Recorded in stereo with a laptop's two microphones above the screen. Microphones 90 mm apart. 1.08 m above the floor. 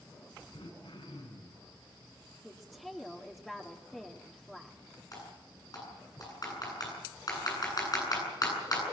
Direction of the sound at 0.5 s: 80° left.